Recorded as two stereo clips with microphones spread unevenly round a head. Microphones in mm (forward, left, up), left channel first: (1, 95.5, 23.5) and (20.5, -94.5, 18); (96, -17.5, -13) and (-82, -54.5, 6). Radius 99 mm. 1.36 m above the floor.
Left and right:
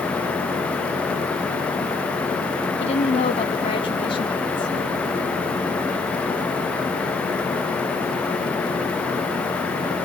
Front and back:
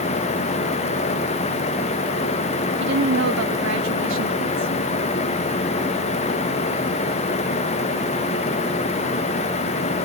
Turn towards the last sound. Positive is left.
turn(degrees=165)